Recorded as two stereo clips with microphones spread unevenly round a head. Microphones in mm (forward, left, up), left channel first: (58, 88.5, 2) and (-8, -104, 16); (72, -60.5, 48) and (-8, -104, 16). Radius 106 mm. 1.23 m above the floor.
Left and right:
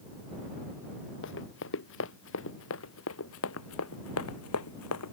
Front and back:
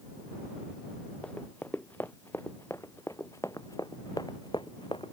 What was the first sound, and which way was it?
Running footsteps, 110° left.